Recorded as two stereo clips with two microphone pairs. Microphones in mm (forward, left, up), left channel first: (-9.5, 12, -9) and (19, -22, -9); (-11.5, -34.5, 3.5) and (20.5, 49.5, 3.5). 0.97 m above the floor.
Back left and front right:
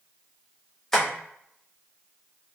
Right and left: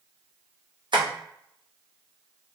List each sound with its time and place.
0.9 s tapping: 50° left, 1.0 m